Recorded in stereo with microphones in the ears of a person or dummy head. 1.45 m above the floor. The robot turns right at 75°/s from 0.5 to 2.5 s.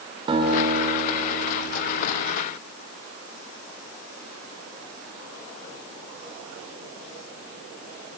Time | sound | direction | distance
0.3 | a guitar | 25° right | 6 m